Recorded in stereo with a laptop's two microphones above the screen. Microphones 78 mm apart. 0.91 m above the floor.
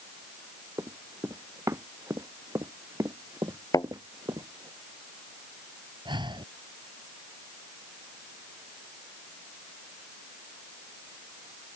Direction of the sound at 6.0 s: 85° right.